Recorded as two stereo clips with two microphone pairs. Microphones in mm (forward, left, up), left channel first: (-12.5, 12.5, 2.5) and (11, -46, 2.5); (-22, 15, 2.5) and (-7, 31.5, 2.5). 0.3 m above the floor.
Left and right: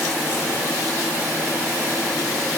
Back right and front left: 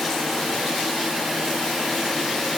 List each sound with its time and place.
Only background noise.